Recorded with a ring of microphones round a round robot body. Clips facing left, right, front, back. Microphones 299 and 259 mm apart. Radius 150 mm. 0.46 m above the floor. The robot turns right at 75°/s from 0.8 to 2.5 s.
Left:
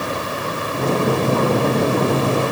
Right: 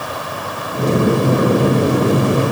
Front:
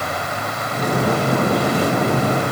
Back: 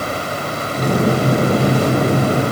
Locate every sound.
Only background noise.